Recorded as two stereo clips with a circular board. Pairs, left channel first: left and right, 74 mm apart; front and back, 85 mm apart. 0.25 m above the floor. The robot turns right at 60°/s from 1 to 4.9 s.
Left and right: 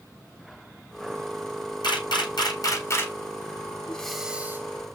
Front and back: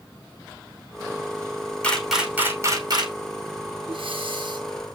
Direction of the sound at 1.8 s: 75° left.